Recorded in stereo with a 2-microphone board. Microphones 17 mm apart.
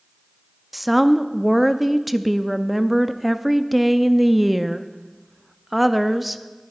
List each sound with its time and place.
0.7 s a woman speaking: 10° right (ahead or behind), 0.5 m